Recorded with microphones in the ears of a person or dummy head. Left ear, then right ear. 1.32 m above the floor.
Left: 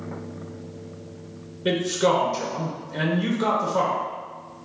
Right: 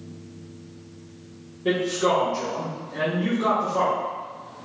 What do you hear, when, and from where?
1.6 s a man speaking: 35° left (ahead or behind), 0.6 m